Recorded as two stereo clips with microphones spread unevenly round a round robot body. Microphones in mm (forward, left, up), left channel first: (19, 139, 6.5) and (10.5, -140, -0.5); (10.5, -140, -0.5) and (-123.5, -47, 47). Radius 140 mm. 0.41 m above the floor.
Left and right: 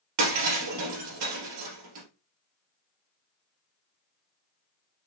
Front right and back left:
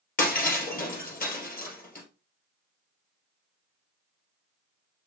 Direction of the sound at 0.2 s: 60° right.